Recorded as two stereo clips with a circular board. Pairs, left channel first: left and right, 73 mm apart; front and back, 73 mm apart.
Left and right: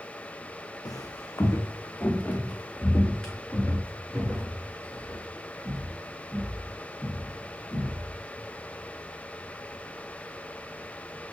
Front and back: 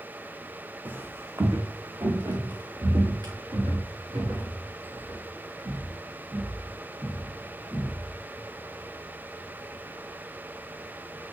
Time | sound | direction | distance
0.8 | footsteps | 115° left | 0.9 m